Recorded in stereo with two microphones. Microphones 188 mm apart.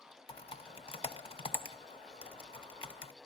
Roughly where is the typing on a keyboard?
Left.